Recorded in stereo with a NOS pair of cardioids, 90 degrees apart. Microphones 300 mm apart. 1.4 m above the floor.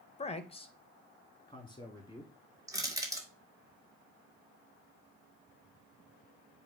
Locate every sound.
0.2 s a man speaking: 20° left, 1.0 m; by 2.3 s 15° left, 3 m
2.7 s crushing: 10° right, 1.8 m